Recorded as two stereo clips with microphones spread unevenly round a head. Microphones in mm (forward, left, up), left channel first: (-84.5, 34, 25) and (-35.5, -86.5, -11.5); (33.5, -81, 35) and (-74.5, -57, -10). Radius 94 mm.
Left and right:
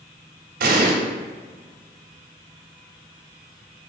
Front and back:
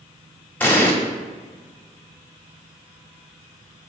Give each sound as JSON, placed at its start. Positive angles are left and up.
{"t": 0.6, "sound": "an explosion", "azimuth_deg": -75, "distance_m": 1.5}